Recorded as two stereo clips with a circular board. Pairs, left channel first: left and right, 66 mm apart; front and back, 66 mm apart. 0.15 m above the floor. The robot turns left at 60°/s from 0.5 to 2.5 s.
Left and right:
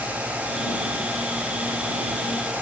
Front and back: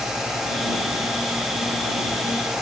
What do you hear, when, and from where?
Only background noise.